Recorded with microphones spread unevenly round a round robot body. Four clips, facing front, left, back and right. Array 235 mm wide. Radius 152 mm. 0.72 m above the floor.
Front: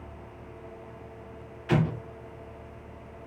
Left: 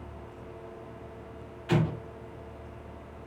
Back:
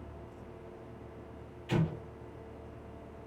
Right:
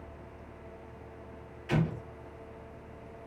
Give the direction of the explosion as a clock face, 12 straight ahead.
11 o'clock.